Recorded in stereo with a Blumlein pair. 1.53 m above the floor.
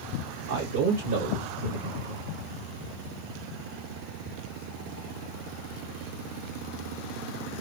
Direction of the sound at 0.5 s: 60° right.